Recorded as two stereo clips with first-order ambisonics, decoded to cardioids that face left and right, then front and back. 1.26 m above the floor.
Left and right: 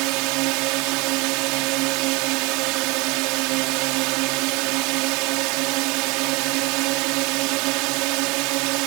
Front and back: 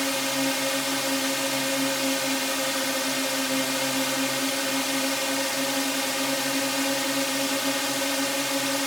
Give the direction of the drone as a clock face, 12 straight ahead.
3 o'clock.